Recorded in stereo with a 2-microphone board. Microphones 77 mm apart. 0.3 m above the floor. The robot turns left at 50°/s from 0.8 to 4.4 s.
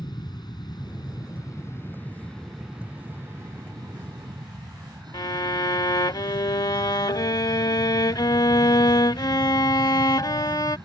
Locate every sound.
0.0 s an aircraft: 65° left (ahead or behind); by 10.9 s 65° right (ahead or behind)
5.1 s a violin: 60° left (ahead or behind)